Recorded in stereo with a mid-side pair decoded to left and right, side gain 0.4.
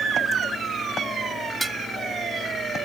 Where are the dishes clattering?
15° right.